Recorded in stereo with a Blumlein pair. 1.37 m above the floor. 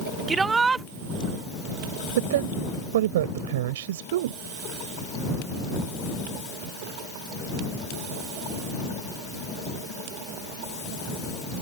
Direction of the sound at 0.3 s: 15° right.